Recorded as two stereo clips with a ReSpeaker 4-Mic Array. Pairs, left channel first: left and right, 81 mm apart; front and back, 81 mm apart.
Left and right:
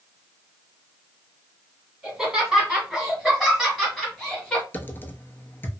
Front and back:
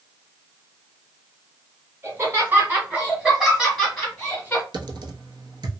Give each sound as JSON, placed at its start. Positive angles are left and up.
{"t": 2.0, "sound": "laughter", "azimuth_deg": -165, "distance_m": 1.9}
{"t": 4.7, "sound": "typing on a keyboard", "azimuth_deg": 155, "distance_m": 0.6}